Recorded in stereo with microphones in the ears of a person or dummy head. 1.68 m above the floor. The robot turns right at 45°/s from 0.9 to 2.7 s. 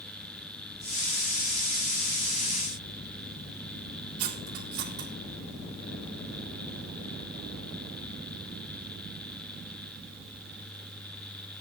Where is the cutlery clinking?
55° right (ahead or behind), 3 m.